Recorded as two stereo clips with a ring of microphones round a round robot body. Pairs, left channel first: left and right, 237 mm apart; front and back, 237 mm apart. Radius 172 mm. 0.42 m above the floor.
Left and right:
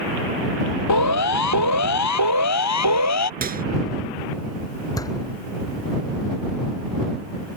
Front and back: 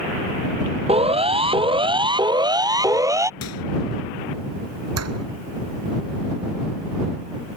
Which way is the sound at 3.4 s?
35° right.